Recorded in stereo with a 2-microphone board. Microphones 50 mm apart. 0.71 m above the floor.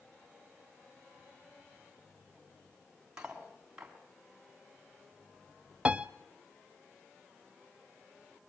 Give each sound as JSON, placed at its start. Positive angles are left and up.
{"t": 3.2, "sound": "cutlery clinking", "side_deg": -15, "distance_m": 3.0}
{"t": 5.8, "sound": "a piano", "side_deg": -20, "distance_m": 0.5}